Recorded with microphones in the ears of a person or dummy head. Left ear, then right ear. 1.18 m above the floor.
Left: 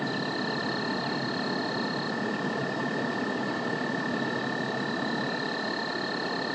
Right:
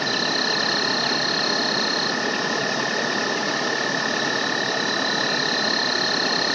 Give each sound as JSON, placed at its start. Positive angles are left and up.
{"t": 0.0, "sound": "an insect", "side_deg": -85}